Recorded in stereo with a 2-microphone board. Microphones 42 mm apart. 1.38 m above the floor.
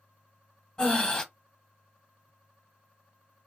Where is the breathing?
20° left (ahead or behind), 1.0 m.